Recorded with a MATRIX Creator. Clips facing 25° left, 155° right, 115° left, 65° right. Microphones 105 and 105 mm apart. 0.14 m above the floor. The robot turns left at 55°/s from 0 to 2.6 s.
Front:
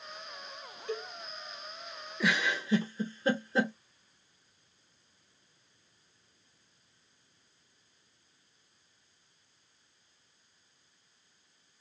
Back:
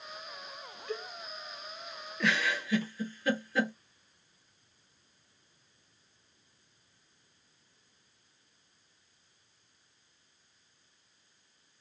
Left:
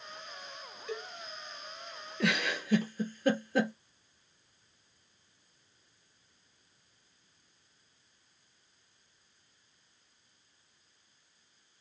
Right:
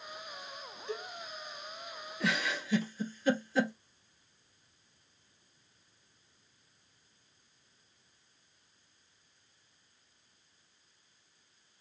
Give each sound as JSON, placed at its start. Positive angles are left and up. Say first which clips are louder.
{"t": 0.9, "sound": "a cowbell", "louder": "front 1 dB, even", "azimuth_deg": -20, "distance_m": 1.4}
{"t": 2.2, "sound": "a giggle", "louder": "even, left 2 dB", "azimuth_deg": 105, "distance_m": 0.8}